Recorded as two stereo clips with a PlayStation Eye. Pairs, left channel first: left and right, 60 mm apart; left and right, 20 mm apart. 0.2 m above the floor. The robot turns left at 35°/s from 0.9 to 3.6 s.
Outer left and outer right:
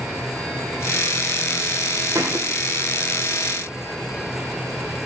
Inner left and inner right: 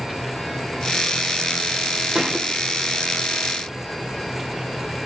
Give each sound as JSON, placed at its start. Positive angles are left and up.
{"t": 2.1, "sound": "a thud", "side_deg": -40, "distance_m": 3.0}